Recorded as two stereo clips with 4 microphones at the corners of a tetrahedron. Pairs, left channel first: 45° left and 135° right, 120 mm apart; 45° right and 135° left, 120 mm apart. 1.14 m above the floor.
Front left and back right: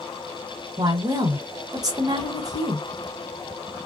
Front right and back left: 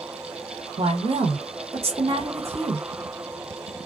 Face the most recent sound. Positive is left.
turn(degrees=170)